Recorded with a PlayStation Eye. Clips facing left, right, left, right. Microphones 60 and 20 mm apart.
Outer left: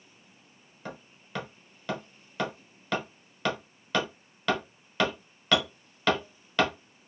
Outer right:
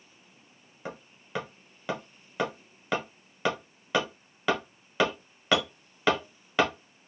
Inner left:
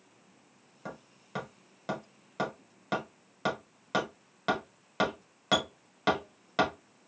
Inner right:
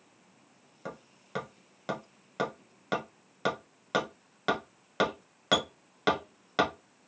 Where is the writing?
No writing in this recording.